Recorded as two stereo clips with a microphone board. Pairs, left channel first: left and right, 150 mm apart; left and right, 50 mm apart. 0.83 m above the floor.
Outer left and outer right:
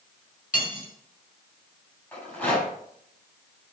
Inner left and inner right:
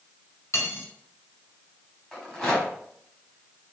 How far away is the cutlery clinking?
About 3.5 m.